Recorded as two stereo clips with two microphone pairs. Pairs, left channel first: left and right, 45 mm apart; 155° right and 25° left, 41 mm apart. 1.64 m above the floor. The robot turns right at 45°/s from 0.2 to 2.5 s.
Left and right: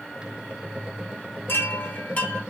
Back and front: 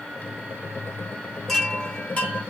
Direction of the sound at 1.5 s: 120° left.